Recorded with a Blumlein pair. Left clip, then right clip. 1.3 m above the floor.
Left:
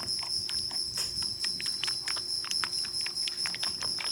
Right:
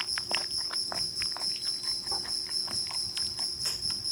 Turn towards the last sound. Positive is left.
turn(degrees=0)